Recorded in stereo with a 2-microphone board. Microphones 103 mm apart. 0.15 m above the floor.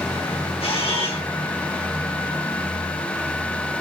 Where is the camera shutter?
85° left, 2.5 m.